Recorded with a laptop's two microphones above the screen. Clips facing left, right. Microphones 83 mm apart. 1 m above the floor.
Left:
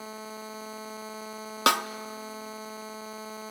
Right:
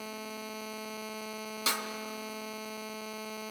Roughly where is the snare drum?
Left.